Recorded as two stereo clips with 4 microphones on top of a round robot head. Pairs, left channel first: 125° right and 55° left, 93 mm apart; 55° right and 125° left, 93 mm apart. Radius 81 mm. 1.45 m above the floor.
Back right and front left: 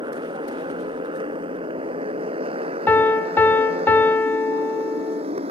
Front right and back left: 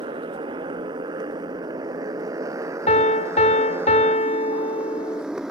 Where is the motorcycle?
90° left; by 5.5 s 40° left.